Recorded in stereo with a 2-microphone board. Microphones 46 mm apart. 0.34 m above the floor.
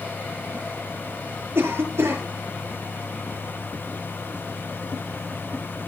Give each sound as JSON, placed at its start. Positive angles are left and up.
{"t": 1.6, "sound": "a cough", "side_deg": -70, "distance_m": 6.5}